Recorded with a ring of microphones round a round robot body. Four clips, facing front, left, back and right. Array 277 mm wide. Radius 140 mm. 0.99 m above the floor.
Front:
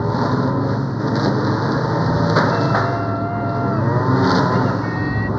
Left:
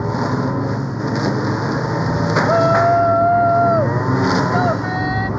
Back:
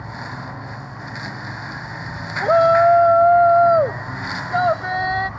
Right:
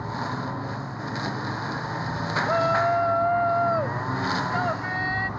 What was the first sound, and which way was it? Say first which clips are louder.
A lawn mower: left 10 dB, front 14 dB; 35° left.